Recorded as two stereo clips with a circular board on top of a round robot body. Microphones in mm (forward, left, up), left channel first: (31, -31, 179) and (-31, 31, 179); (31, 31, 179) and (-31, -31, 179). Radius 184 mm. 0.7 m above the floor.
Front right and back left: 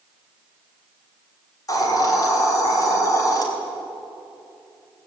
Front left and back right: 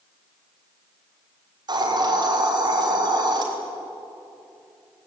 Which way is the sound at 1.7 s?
95° right.